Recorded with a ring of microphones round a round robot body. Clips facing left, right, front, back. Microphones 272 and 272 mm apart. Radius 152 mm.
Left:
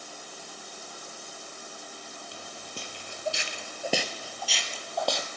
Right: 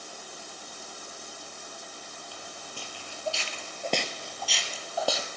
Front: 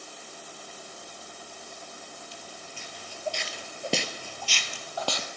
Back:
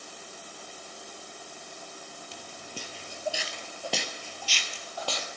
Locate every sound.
2.3 s footsteps: 155° left, 1.2 m; by 5.3 s 5° right, 1.5 m